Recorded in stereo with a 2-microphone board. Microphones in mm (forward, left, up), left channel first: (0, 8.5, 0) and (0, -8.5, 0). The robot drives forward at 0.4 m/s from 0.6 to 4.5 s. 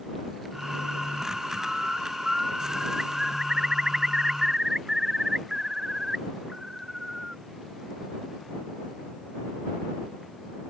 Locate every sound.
1.6 s a bird: 35° right (ahead or behind); by 7.4 s 25° right (ahead or behind)